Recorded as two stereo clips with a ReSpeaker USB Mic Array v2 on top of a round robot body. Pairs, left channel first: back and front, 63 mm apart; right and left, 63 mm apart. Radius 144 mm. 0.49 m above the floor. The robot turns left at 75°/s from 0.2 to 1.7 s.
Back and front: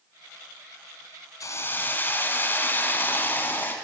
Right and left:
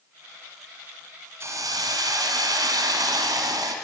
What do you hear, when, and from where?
1.4 s a hiss: 140° left, 1.7 m; by 3.8 s 120° left, 1.7 m